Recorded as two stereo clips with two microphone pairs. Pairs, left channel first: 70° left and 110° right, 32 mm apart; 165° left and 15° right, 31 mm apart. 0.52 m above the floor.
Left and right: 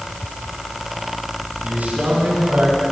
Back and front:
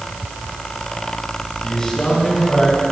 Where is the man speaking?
130° right, 6 m.